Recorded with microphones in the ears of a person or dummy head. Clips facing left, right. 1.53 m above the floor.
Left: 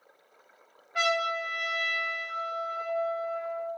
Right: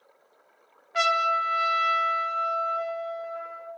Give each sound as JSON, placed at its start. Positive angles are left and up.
{"t": 0.9, "sound": "a trumpet", "side_deg": -60, "distance_m": 0.5}